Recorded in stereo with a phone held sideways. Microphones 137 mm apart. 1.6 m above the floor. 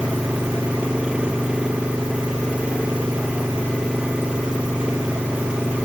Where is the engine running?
5° right (ahead or behind).